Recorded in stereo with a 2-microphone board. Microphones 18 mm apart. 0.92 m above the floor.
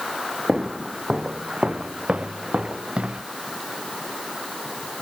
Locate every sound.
0.5 s footsteps: 55° right (ahead or behind); by 3.2 s 75° right (ahead or behind)